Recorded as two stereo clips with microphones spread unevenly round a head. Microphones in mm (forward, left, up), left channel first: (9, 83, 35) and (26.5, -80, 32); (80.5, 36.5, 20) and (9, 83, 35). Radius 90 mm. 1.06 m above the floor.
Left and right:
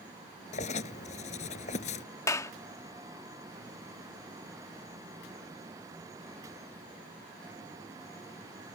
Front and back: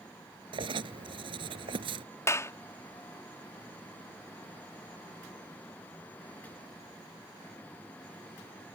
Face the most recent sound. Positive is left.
turn(degrees=25)